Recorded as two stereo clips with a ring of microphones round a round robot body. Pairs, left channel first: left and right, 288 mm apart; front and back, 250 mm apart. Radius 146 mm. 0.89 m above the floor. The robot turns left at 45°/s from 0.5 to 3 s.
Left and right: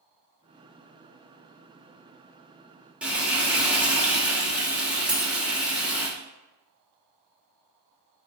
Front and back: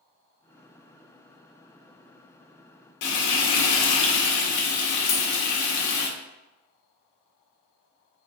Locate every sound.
3.0 s frying: 5° right, 0.9 m
5.1 s a dropped coin: 15° right, 1.4 m